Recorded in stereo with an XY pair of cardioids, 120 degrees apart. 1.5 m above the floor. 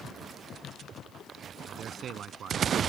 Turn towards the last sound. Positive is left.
turn(degrees=-55)